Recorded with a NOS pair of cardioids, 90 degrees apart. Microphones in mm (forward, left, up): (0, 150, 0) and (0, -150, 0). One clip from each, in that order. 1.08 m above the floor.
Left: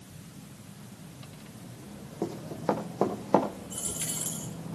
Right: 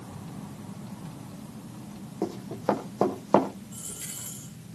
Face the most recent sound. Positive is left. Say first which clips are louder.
# left 4 dB
turn(degrees=50)